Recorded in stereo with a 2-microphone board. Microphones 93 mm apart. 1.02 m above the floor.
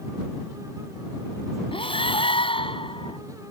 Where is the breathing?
75° left (ahead or behind).